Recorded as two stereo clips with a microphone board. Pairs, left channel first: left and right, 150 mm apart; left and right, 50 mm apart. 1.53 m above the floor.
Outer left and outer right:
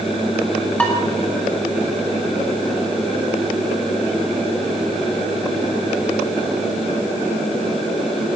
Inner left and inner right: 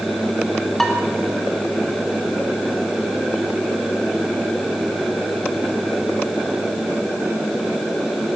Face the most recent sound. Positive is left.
turn(degrees=10)  # may be behind; listen again after turning